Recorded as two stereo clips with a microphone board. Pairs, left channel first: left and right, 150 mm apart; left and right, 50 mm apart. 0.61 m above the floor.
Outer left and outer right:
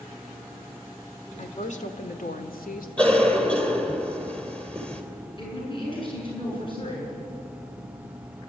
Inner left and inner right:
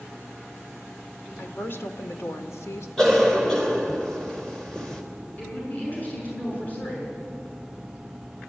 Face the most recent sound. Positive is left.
turn(degrees=30)  # may be behind; listen again after turning